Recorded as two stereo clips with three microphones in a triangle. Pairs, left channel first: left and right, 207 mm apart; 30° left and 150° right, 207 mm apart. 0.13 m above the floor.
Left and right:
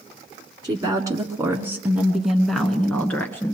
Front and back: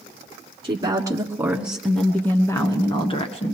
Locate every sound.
0.6 s a woman speaking: 125° right, 1.5 m; by 3.5 s 20° left, 1.6 m